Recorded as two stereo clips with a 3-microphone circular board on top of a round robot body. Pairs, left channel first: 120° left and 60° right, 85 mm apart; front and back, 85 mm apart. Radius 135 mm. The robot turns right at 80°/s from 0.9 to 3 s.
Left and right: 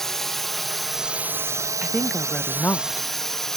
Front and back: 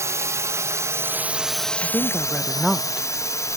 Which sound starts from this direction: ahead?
A woman speaking, at 1.8 s.